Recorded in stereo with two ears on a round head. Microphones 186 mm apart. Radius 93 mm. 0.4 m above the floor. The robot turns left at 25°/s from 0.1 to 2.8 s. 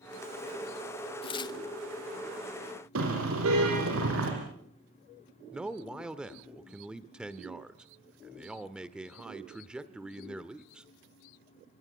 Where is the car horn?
75° right (ahead or behind), 7.5 m.